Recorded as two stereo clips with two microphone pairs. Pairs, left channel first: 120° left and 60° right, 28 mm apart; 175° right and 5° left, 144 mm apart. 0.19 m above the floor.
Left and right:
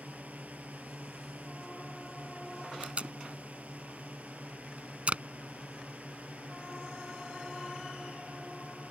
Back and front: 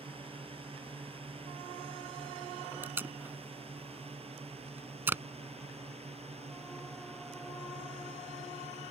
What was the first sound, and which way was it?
A drone, 40° right.